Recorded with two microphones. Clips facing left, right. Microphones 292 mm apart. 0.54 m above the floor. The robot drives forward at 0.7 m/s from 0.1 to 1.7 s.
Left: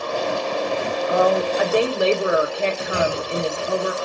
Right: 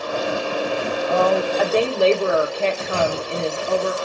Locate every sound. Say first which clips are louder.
1.1 s a woman speaking: even; 20° left (ahead or behind), 0.7 m; by 3.9 s 15° left (ahead or behind), 1.0 m
2.9 s a clunk: even; 25° left (ahead or behind), 2.5 m